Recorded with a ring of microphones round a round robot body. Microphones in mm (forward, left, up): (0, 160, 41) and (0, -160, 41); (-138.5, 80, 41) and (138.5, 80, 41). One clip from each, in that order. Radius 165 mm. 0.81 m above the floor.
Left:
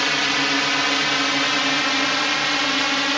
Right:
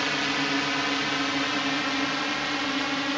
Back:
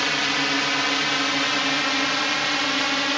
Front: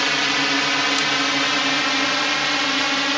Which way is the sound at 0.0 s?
65° left.